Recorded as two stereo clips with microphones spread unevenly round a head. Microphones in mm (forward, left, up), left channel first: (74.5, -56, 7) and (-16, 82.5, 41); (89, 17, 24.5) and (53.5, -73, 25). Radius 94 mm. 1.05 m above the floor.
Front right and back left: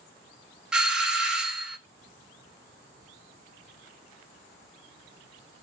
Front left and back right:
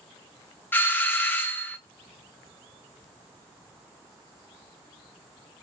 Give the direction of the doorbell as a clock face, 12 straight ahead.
11 o'clock.